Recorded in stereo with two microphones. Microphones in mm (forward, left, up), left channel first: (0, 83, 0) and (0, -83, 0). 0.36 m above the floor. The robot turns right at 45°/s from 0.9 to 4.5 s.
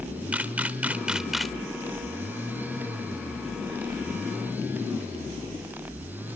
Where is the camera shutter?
10° right (ahead or behind), 0.9 m; by 1.6 s centre (ahead or behind), 0.9 m.